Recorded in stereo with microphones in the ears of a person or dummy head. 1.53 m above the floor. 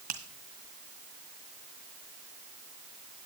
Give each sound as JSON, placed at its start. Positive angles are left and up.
{"t": 0.1, "sound": "a finger snap", "side_deg": -35, "distance_m": 1.7}